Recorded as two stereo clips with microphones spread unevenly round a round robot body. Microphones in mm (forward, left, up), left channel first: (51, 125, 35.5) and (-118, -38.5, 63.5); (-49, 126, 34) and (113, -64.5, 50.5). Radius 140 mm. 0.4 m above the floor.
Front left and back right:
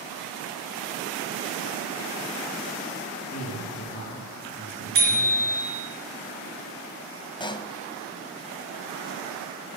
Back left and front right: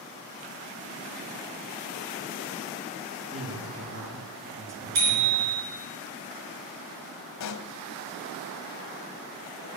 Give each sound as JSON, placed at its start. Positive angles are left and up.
{"t": 3.3, "sound": "a man speaking", "azimuth_deg": -15, "distance_m": 5.5}
{"t": 5.0, "sound": "a bicycle bell", "azimuth_deg": -80, "distance_m": 4.0}
{"t": 7.4, "sound": "a pop", "azimuth_deg": 115, "distance_m": 0.9}